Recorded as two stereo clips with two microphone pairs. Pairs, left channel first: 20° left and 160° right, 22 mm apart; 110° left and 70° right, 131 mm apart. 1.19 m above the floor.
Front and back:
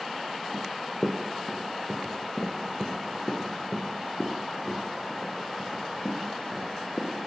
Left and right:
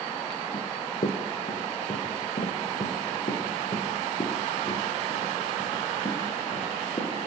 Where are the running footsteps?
125° left, 3 m; by 7.1 s 70° left, 7.5 m.